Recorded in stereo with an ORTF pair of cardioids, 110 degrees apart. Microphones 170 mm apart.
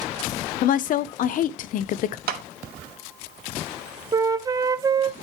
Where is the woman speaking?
55° left, 0.6 m.